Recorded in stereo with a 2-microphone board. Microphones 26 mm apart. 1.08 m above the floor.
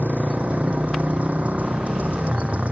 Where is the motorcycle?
60° right (ahead or behind).